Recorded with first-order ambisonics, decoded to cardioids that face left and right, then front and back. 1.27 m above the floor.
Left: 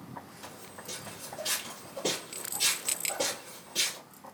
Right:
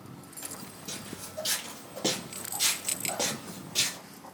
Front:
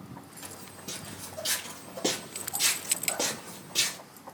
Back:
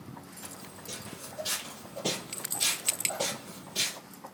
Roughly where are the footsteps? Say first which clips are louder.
Right 2 dB, front 3 dB; ahead right.